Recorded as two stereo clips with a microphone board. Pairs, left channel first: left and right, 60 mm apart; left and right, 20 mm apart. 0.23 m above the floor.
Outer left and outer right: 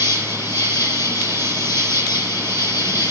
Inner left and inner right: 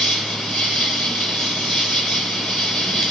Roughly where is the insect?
Left.